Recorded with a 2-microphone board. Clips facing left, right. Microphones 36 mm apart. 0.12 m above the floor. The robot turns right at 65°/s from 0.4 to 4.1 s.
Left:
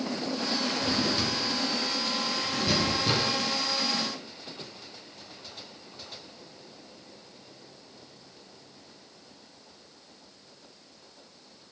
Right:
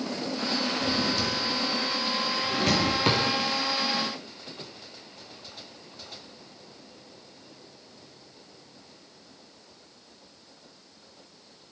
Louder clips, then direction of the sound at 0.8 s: Right 1 dB; 45° left (ahead or behind).